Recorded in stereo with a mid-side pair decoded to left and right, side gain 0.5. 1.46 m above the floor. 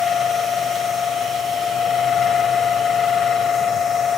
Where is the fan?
50° left, 1.2 m.